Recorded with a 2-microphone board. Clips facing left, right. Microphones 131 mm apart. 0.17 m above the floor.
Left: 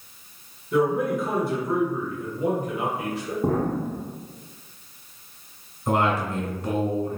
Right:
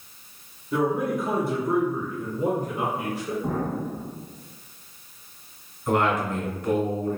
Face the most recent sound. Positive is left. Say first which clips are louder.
# even
turn(degrees=35)  # may be behind; listen again after turning